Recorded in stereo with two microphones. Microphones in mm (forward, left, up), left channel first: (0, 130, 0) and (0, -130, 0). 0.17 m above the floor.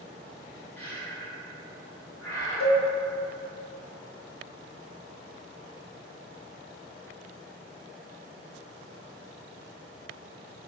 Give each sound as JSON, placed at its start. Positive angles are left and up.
{"t": 0.8, "sound": "breathing", "side_deg": 5, "distance_m": 1.2}
{"t": 2.6, "sound": "a cowbell", "side_deg": 20, "distance_m": 0.6}